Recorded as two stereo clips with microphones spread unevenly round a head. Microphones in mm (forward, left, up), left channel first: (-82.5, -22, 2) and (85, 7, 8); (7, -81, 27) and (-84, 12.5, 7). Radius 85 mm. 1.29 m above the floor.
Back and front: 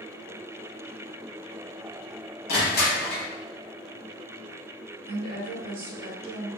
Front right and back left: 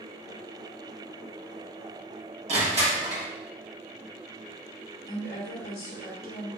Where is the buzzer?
I don't hear a buzzer.